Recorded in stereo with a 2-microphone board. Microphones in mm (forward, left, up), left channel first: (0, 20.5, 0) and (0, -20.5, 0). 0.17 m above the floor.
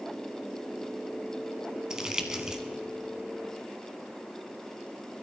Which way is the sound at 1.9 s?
20° right (ahead or behind).